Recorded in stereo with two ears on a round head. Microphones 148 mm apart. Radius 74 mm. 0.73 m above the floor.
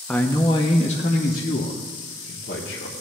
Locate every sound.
0.1 s a man speaking: 5° left (ahead or behind), 0.5 m; by 2.9 s 70° left (ahead or behind), 1.6 m